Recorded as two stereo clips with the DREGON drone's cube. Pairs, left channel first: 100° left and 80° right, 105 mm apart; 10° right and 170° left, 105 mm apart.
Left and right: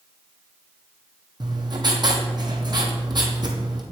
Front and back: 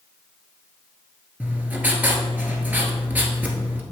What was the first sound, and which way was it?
Writing, 115° right.